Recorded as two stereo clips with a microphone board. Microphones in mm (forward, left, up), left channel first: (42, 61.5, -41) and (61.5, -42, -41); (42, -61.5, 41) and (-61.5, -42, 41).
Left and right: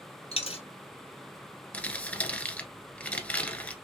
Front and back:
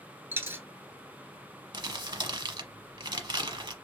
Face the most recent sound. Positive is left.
turn(degrees=165)